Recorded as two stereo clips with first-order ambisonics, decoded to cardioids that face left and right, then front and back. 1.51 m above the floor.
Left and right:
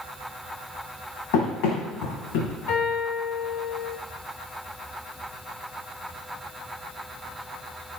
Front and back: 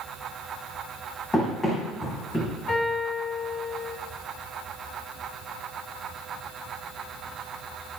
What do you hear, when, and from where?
1.3 s running footsteps: 80° left, 4.5 m; by 2.5 s 90° left, 4.5 m
2.7 s a piano: 65° left, 4.5 m